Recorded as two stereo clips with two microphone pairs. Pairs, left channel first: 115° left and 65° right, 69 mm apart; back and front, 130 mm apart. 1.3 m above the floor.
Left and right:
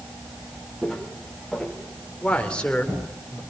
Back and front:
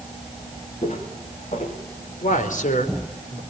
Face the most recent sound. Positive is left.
turn(degrees=-170)